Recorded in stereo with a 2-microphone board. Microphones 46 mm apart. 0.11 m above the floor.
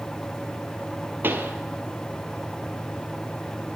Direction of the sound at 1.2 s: 50° right (ahead or behind).